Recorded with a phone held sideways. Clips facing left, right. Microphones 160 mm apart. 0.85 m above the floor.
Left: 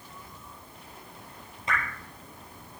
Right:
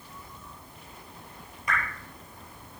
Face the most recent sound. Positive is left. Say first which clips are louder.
# even
turn(degrees=25)  # may be behind; listen again after turning